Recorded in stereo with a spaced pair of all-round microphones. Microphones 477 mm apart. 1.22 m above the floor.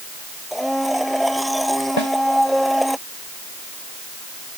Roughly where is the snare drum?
Left.